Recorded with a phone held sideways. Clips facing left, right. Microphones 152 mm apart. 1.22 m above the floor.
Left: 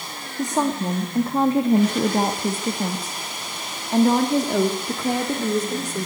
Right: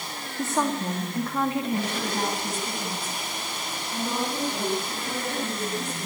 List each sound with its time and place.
0.4 s a woman speaking: 15° left (ahead or behind), 2 m; by 6.1 s 75° left (ahead or behind), 3.5 m